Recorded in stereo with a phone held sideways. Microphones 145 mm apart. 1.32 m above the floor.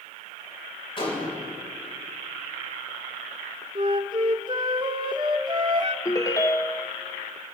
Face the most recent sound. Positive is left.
turn(degrees=20)  # may be behind; listen again after turning